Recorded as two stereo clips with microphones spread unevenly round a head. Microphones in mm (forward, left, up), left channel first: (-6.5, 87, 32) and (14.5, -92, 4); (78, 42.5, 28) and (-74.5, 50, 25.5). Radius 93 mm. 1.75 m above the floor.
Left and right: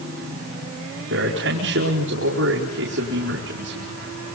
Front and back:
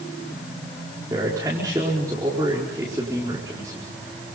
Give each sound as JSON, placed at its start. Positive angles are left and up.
{"t": 1.1, "sound": "a man speaking", "azimuth_deg": -110, "distance_m": 5.0}